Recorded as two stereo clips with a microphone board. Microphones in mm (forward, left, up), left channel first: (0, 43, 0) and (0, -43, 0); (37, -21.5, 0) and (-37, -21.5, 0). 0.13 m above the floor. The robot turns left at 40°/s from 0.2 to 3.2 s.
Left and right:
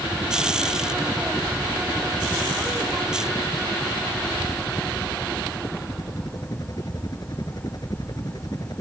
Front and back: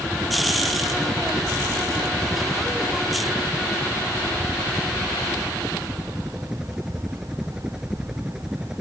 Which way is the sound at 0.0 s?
140° right.